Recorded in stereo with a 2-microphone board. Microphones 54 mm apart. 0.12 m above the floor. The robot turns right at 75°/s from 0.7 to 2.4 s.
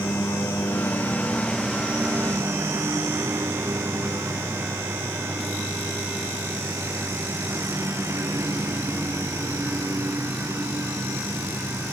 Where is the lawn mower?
110° left; by 11.9 s 120° right.